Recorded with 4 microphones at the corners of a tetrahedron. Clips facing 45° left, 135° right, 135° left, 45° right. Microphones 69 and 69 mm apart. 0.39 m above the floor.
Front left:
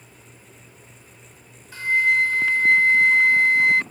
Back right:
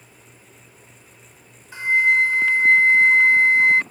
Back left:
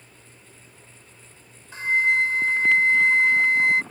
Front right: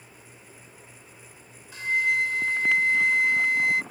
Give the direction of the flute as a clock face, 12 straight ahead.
6 o'clock.